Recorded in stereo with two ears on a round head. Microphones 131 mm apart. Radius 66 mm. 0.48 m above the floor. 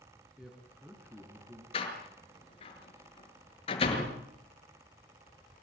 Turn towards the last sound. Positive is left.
turn(degrees=40)  # may be behind; listen again after turning